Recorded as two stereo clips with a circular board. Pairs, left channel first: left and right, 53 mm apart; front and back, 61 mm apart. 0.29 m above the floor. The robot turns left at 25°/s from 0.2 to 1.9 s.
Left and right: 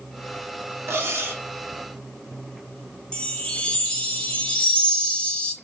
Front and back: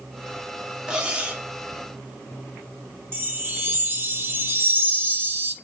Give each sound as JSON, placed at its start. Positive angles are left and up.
{"t": 0.9, "sound": "cutlery clinking", "azimuth_deg": -105, "distance_m": 0.7}
{"t": 3.1, "sound": "a chime", "azimuth_deg": 150, "distance_m": 0.7}